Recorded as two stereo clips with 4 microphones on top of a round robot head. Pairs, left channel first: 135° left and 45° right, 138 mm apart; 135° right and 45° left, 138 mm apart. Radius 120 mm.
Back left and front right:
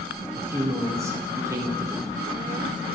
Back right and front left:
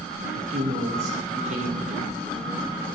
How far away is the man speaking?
About 3.5 m.